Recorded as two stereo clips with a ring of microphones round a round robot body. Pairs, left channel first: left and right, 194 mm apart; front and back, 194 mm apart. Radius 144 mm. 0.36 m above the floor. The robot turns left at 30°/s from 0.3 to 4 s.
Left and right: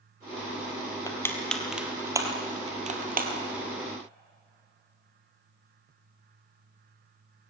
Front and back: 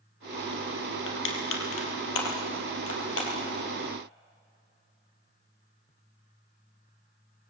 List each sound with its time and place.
1.1 s crushing: 20° left, 3 m; by 3.3 s 50° right, 3 m